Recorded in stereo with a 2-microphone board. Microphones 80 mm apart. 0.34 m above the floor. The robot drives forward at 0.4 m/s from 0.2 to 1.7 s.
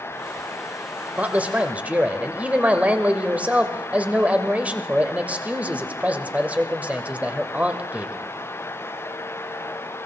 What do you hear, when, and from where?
1.2 s a man speaking: 20° right (ahead or behind), 1.1 m